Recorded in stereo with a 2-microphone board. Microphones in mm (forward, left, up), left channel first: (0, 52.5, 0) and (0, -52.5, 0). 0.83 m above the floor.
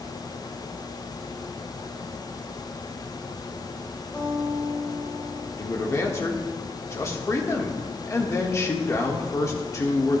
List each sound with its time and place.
4.1 s a guitar: 15° left (ahead or behind), 2.5 m
5.6 s a man speaking: 30° left (ahead or behind), 1.2 m